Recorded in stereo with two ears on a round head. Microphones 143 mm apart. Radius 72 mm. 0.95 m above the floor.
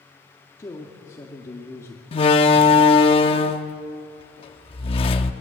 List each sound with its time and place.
0.6 s a man speaking: 20° left (ahead or behind), 2 m
2.1 s a door slam: 35° left (ahead or behind), 1.0 m